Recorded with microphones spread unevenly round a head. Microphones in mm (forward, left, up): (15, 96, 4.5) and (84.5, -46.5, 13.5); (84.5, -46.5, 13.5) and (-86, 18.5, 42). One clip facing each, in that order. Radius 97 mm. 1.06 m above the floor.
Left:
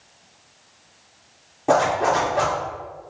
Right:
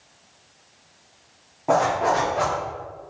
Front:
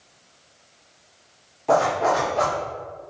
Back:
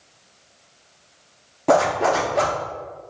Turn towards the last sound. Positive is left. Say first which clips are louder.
# left 1 dB, back 2 dB
turn(degrees=-175)